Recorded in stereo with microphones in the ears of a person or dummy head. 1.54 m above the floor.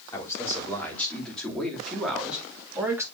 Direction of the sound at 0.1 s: 10° left (ahead or behind).